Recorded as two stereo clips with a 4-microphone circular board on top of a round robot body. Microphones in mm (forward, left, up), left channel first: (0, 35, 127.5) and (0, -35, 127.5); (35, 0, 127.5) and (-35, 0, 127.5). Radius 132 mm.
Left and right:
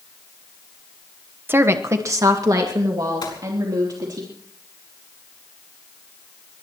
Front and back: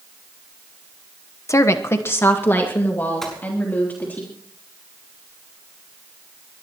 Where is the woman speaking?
35° right, 1.1 m; by 4.2 s 65° right, 4 m.